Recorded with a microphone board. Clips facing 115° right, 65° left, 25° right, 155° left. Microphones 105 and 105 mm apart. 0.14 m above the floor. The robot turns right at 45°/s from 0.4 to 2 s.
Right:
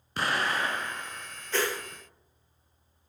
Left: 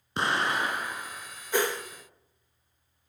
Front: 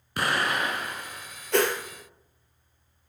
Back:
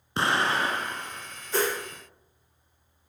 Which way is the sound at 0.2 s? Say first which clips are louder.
Left 1 dB, back 2 dB; 125° left.